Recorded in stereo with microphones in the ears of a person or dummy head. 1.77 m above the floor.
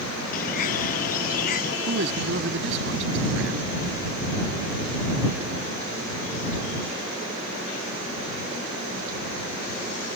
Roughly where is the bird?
Left.